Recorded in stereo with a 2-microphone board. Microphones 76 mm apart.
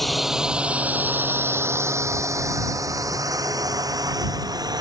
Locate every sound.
0.0 s a drone: centre (ahead or behind); by 4.8 s 55° right (ahead or behind)